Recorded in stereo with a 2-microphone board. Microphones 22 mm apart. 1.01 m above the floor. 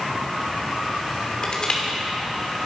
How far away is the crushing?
About 2.5 m.